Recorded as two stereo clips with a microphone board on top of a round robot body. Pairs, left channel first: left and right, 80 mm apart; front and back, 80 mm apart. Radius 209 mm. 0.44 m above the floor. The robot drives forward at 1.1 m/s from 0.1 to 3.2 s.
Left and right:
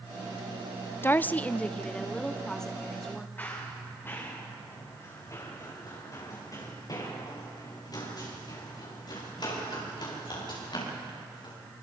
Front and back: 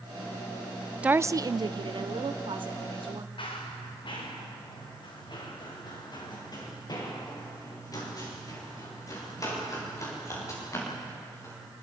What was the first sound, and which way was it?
A woman speaking, 120° left.